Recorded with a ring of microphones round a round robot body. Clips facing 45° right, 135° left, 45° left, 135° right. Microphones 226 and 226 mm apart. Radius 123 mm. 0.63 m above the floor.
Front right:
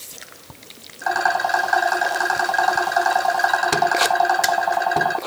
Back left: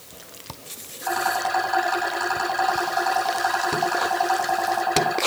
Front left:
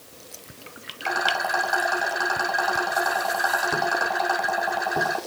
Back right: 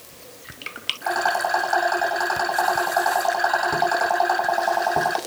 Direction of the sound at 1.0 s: 40° right.